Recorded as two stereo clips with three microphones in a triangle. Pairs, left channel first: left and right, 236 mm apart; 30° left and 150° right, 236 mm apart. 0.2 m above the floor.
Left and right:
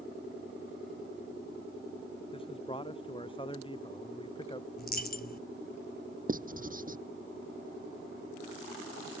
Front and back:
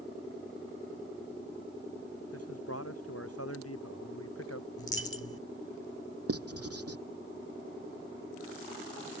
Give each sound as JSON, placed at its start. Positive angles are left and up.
{"t": 2.3, "sound": "a man speaking", "azimuth_deg": 25}
{"t": 4.8, "sound": "a dropped coin", "azimuth_deg": 45}
{"t": 6.3, "sound": "writing", "azimuth_deg": -145}